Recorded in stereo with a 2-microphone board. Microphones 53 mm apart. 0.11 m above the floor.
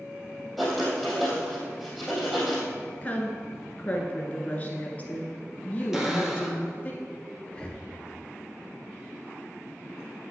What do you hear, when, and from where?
0.6 s writing: 5° right (ahead or behind), 4 m
3.0 s a woman speaking: 25° left (ahead or behind), 1.7 m
5.9 s a cupboard door: 10° right (ahead or behind), 1.6 m
7.5 s breathing: 20° left (ahead or behind), 1.2 m